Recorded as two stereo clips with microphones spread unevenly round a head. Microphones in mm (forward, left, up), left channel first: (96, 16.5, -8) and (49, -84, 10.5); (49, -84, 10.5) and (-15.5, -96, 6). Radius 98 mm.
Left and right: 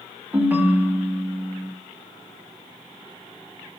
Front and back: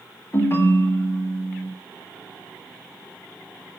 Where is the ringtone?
45° right, 2 m.